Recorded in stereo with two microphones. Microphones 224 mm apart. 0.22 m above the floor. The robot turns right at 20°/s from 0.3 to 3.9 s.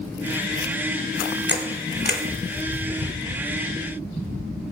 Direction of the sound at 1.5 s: 50° left (ahead or behind).